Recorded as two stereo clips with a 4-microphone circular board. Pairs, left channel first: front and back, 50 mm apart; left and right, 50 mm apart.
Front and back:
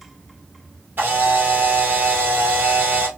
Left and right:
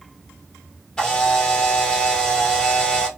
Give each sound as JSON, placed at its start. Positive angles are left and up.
{"t": 1.0, "sound": "a camera shutter", "azimuth_deg": 155, "distance_m": 1.6}